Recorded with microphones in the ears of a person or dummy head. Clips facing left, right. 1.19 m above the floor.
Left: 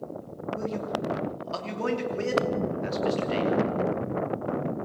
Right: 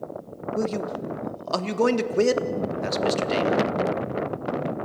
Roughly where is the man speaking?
Right.